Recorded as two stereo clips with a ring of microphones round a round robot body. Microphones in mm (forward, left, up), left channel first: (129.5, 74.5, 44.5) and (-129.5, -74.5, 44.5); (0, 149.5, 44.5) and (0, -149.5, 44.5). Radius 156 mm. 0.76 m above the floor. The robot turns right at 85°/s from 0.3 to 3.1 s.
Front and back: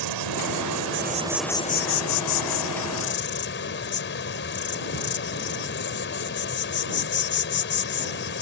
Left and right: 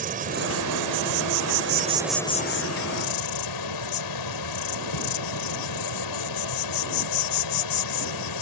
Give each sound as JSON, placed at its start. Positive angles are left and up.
{"t": 0.0, "sound": "an insect", "azimuth_deg": -155}